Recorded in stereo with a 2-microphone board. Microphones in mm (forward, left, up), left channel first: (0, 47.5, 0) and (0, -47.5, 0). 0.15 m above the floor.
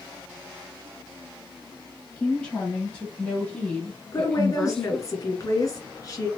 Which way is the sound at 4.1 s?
40° left (ahead or behind).